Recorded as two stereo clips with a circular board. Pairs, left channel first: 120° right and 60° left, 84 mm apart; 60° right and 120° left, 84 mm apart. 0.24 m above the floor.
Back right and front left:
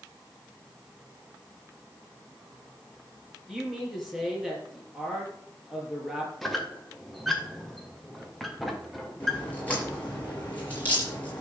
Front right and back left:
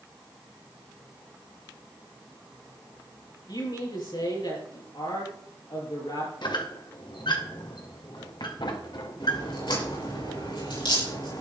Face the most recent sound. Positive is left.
turn(degrees=-50)